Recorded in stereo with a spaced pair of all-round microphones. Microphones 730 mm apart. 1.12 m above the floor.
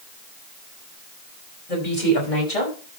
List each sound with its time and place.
1.7 s a woman speaking: 75° left (ahead or behind), 5 m; by 2.8 s 85° left, 5 m